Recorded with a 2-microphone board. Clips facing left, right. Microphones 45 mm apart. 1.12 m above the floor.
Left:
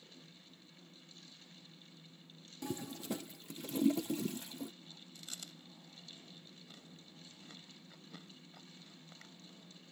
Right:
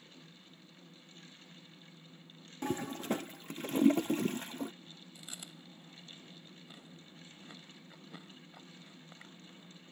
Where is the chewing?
20° right (ahead or behind).